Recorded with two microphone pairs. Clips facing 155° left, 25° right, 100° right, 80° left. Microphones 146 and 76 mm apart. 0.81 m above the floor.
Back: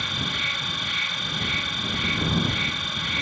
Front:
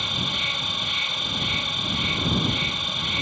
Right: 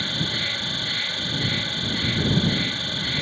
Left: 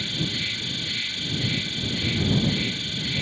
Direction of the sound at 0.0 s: 90° right.